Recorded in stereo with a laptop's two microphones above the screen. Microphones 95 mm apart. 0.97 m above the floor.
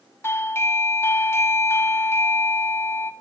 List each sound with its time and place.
0.2 s a doorbell: 25° left (ahead or behind), 0.8 m